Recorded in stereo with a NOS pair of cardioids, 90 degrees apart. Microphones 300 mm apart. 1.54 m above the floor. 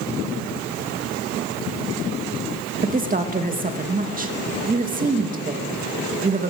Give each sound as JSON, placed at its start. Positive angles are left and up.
{"t": 2.8, "sound": "a woman speaking", "azimuth_deg": -25, "distance_m": 2.5}